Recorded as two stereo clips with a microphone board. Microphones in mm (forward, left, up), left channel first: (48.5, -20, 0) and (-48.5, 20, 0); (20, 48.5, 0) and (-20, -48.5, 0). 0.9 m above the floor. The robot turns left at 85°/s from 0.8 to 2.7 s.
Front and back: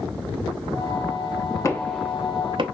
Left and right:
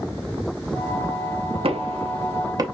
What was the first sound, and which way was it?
Knocking, 80° right.